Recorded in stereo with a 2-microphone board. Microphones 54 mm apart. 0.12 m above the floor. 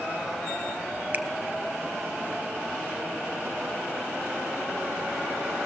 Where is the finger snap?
35° right (ahead or behind), 1.7 m.